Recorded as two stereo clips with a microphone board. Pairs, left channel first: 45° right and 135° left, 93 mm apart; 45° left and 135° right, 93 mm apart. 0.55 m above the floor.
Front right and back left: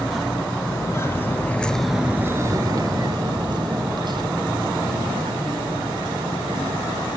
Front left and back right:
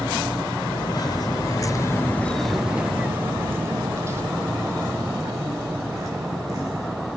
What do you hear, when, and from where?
0.7 s footsteps: 10° left, 1.1 m; by 7.1 s 170° left, 3.5 m